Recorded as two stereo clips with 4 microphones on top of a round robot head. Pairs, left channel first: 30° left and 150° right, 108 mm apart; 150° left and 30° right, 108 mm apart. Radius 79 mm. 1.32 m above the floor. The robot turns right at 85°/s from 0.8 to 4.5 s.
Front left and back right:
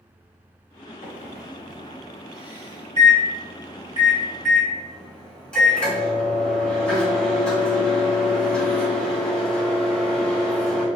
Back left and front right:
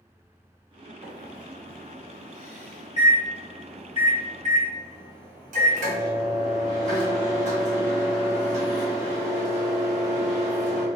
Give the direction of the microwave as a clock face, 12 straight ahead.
11 o'clock.